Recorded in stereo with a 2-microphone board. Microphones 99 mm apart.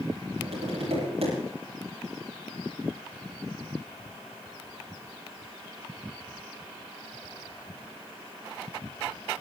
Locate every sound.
0.4 s tapping: 80° right, 10 m